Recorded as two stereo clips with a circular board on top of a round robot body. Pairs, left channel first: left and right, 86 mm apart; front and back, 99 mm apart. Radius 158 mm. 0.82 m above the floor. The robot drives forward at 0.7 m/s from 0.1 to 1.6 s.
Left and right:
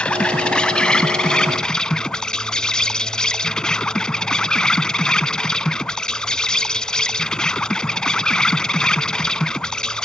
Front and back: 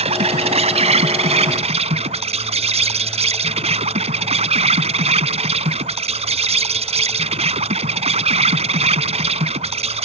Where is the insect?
170° left.